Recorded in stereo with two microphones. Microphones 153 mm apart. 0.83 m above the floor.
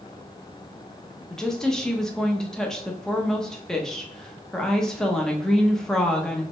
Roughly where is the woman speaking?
Centre.